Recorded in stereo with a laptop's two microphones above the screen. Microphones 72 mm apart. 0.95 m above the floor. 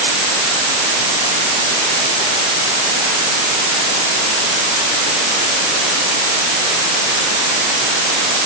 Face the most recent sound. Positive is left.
No sound to turn to.